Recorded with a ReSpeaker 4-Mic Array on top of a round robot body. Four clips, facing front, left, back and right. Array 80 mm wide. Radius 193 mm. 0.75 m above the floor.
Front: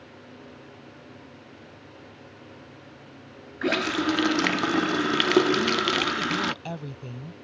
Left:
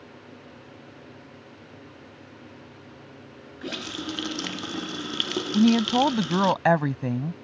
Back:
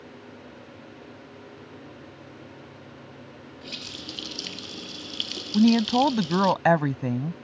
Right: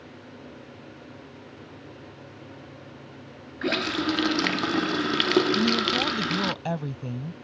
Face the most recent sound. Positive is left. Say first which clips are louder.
# left 5 dB, back 5 dB
turn(degrees=135)